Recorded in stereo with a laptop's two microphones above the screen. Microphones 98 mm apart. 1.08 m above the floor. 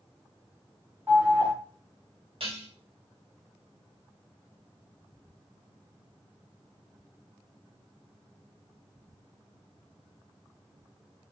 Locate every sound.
1.1 s an alarm: 20° right (ahead or behind), 1.8 m
2.4 s dishes clattering: 65° right (ahead or behind), 1.3 m